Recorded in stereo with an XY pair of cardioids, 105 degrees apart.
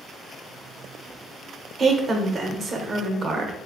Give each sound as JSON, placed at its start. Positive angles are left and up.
{"t": 1.8, "sound": "a woman speaking", "azimuth_deg": -45, "distance_m": 0.9}